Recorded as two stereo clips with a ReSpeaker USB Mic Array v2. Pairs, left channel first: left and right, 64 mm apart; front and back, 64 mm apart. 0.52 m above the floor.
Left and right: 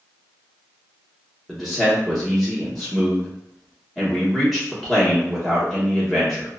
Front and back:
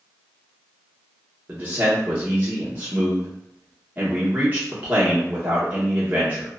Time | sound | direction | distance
1.5 | a man speaking | straight behind | 0.8 m